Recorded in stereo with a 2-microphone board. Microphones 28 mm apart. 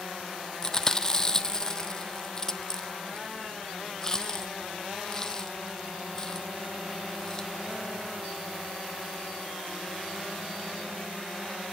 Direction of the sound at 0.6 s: 25° left (ahead or behind).